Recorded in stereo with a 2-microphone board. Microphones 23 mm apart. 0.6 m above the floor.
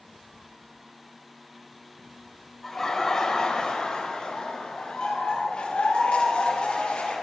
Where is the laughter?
10° left (ahead or behind), 2.5 m; by 7.1 s 65° left (ahead or behind), 4.5 m.